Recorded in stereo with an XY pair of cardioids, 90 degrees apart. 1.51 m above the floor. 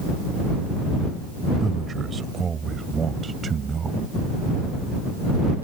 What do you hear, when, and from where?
1.6 s a man speaking: 45° right